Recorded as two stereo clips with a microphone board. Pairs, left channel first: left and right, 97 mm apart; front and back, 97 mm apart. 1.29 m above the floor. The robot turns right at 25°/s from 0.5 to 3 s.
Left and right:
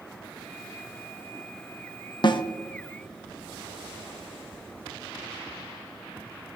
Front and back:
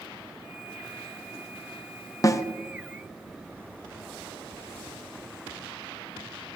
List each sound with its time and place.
2.2 s a snare drum: 55° left, 0.5 m